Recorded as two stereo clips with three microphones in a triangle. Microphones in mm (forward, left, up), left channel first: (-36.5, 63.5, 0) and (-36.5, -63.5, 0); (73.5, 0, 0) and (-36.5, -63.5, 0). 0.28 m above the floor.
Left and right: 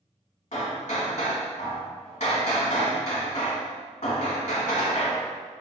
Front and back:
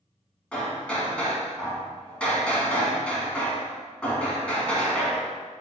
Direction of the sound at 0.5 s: 110° left.